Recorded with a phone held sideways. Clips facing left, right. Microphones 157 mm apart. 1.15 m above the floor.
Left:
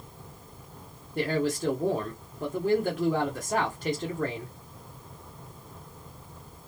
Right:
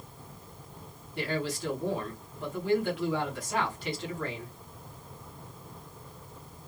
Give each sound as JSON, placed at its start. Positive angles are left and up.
{"t": 1.1, "sound": "a man speaking", "side_deg": 45, "distance_m": 0.9}